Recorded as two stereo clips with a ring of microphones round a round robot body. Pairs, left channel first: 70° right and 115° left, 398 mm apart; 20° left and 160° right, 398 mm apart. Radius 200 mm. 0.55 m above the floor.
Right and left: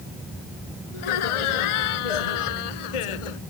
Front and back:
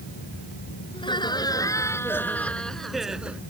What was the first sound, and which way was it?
Laughter, 55° right.